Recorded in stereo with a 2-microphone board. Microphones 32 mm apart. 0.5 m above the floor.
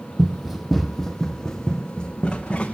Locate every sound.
0.2 s running footsteps: 15° right (ahead or behind), 1.0 m; by 2.8 s 30° left (ahead or behind), 1.9 m